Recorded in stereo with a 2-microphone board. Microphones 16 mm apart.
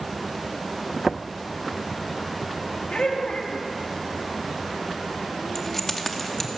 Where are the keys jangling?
15° left (ahead or behind), 2.5 m.